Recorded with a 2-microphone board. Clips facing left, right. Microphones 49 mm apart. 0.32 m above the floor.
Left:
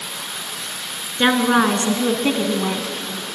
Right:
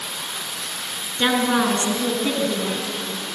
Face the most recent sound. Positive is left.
turn(degrees=65)  # may be behind; listen again after turning